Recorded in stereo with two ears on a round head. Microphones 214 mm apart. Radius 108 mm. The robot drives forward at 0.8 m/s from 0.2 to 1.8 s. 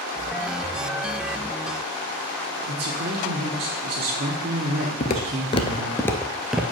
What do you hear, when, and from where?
2.7 s a man speaking: 40° right (ahead or behind), 1.4 m
5.0 s footsteps: 35° left (ahead or behind), 0.9 m; by 6.6 s 5° right (ahead or behind), 0.9 m